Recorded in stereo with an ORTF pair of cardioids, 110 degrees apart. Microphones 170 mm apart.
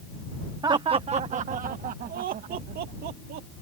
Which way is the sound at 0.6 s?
25° right.